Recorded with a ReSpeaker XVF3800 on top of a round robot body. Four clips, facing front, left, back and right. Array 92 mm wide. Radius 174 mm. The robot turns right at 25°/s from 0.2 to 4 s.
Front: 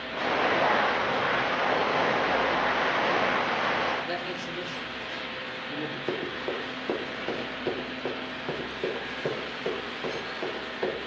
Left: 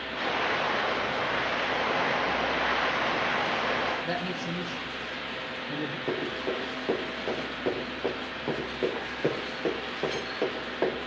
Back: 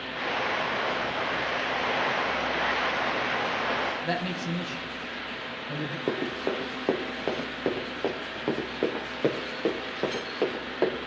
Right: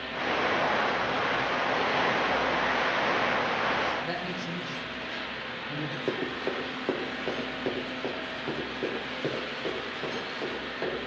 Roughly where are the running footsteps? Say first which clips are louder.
Even, back 4 dB; behind.